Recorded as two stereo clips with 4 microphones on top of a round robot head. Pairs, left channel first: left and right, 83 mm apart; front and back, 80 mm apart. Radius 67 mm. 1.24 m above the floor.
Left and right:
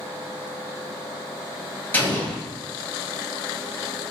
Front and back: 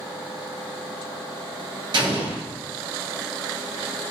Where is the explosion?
160° left, 1.3 m.